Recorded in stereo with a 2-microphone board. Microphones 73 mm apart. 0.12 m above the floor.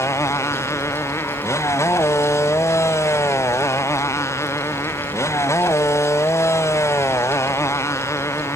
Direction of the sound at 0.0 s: 40° left (ahead or behind).